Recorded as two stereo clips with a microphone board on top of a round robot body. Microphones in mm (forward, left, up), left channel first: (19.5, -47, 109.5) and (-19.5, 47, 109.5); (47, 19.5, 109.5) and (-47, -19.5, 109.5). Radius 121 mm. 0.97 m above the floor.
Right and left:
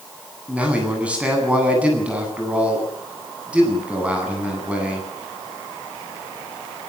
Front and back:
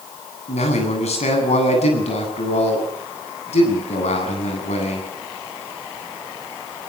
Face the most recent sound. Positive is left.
turn(degrees=35)